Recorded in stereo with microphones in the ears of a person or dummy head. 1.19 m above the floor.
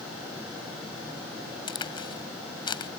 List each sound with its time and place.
1.7 s a crack: 30° left (ahead or behind)